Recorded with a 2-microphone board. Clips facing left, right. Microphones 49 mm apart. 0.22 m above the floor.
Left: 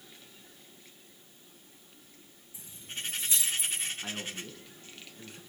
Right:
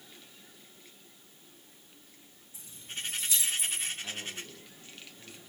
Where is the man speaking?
45° left (ahead or behind), 2.5 m.